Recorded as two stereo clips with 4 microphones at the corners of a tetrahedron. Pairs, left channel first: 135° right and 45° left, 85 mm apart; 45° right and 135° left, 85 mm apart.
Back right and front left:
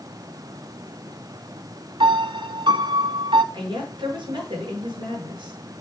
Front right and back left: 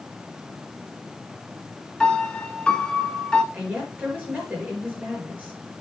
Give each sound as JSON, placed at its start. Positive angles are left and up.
{"t": 2.0, "sound": "a piano", "azimuth_deg": 35, "distance_m": 0.7}
{"t": 3.5, "sound": "a woman speaking", "azimuth_deg": 65, "distance_m": 6.0}